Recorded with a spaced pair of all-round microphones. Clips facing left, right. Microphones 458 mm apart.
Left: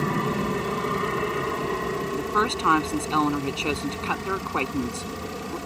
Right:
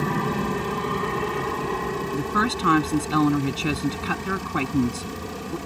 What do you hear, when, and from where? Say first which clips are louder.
0.0 s an aircraft: even; 5° right (ahead or behind)
2.1 s a woman speaking: right 2 dB; 35° right (ahead or behind)